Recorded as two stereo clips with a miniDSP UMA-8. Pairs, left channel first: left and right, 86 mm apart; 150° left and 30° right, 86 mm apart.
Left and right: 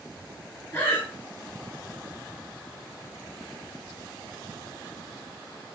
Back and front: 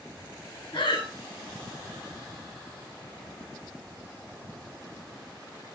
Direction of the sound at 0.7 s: 155° left.